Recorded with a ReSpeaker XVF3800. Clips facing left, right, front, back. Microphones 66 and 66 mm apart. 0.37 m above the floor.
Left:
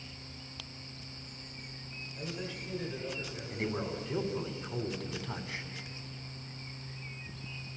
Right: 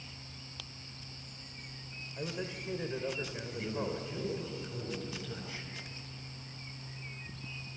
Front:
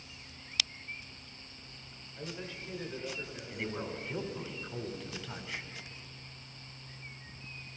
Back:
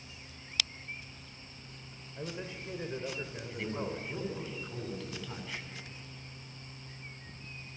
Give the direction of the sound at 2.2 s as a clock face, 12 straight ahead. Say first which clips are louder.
Right 2 dB, back 2 dB; 4 o'clock.